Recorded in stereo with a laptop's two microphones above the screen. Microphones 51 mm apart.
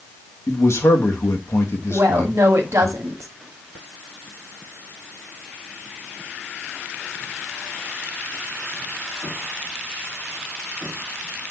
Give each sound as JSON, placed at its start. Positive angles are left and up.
{"t": 0.5, "sound": "a man speaking", "side_deg": 55, "distance_m": 1.4}
{"t": 1.9, "sound": "a woman speaking", "side_deg": -80, "distance_m": 1.6}